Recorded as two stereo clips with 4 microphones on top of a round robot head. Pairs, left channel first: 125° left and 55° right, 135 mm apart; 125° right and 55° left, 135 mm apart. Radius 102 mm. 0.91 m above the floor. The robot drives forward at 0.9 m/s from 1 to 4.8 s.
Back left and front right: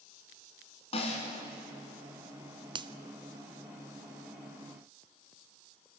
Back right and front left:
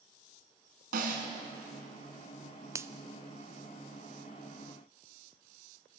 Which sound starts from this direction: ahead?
A finger snap, at 2.8 s.